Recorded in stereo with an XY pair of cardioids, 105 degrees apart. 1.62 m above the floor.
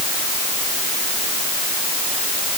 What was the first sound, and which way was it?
Only background noise.